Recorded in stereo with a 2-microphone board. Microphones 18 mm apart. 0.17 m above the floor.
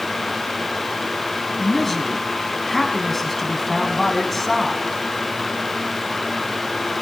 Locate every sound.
1.6 s a man speaking: 10° left (ahead or behind), 1.3 m